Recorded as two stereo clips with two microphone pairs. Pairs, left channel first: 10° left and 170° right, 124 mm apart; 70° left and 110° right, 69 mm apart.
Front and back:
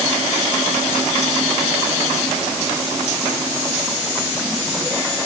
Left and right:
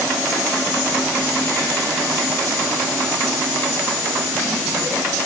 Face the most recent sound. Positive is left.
No sound to turn to.